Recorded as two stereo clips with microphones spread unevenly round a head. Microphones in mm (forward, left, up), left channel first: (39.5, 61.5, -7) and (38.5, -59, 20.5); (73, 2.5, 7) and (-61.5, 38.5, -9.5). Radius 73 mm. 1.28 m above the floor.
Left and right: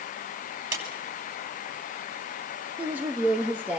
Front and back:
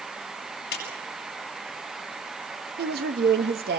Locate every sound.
0.7 s a clap: 35° right, 8 m
2.8 s a woman speaking: 170° right, 2 m